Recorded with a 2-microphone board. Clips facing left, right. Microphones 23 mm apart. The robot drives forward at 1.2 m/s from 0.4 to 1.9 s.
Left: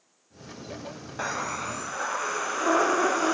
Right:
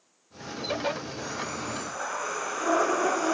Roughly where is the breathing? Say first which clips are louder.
Left 3 dB; left.